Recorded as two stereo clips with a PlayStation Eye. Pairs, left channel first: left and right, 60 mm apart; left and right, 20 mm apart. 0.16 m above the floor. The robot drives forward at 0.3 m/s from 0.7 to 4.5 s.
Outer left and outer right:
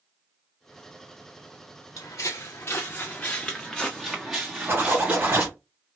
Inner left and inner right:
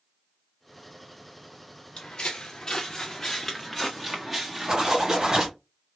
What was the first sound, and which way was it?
Footsteps, 70° left (ahead or behind).